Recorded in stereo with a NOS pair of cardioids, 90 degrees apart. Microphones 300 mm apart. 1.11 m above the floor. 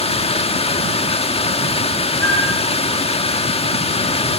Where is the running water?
20° left, 2 m.